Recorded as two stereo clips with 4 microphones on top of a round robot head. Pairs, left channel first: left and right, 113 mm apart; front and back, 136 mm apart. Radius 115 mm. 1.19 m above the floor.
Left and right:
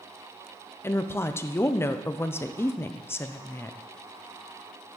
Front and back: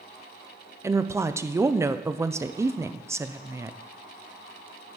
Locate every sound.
0.8 s a woman speaking: 130° left, 0.6 m